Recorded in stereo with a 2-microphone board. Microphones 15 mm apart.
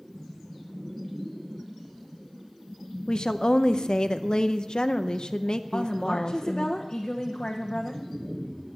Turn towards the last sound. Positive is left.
turn(degrees=50)  # may be behind; listen again after turning